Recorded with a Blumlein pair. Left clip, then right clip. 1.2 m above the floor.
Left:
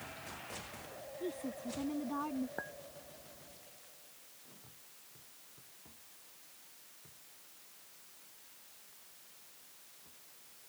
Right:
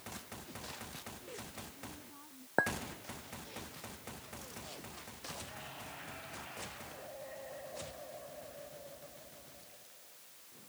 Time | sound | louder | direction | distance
1.2 | a woman speaking | left 6 dB | 50° left | ?
2.6 | a clink | right 12 dB | 30° right | ?